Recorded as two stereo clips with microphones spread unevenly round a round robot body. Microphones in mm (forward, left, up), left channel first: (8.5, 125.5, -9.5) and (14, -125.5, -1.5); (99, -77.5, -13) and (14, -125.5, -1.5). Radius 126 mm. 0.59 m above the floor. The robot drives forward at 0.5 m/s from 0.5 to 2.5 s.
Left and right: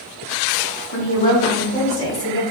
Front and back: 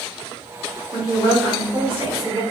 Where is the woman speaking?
145° left, 1.3 m; by 2.4 s 160° left, 1.9 m.